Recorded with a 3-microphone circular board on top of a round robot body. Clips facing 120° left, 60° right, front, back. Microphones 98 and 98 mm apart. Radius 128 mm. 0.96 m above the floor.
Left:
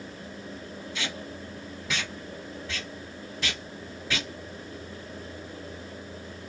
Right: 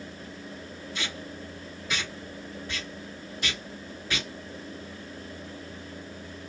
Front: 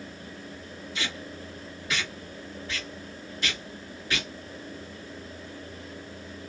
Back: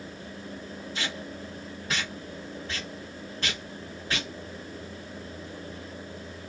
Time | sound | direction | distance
0.9 | tape being pulled | 120° left | 1.9 m